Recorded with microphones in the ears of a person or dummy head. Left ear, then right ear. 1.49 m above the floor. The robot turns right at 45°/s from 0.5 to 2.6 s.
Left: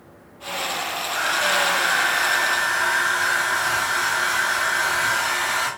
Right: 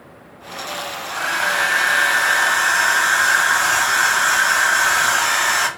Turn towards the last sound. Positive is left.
turn(degrees=-125)